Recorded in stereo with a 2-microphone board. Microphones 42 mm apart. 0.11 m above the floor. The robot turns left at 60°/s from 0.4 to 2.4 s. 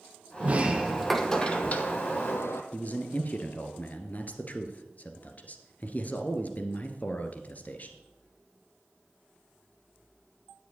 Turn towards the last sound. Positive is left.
turn(degrees=40)  # may be behind; listen again after turning